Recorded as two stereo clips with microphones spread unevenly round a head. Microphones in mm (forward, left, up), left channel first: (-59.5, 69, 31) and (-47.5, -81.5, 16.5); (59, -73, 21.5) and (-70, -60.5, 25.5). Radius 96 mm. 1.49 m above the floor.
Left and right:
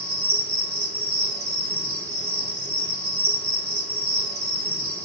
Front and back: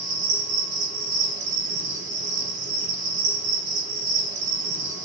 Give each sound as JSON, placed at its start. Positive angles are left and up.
{"t": 0.0, "sound": "an insect", "azimuth_deg": 180, "distance_m": 1.7}